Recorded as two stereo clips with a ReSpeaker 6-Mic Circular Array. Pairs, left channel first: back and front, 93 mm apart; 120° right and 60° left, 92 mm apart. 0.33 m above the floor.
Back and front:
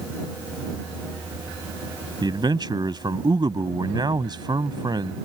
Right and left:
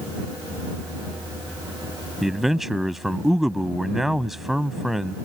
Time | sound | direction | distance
2.2 | a man speaking | 25° right | ?